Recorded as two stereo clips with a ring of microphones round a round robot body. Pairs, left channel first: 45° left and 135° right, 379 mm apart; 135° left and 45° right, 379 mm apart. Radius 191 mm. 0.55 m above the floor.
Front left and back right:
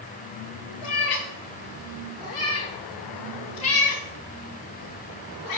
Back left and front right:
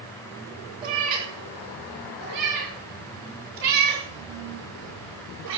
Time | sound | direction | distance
0.8 | a cat meowing | 25° left | 4 m